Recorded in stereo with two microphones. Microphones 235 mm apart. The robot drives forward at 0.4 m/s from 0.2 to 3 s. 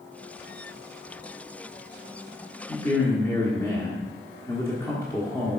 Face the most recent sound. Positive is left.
turn(degrees=10)  # may be behind; listen again after turning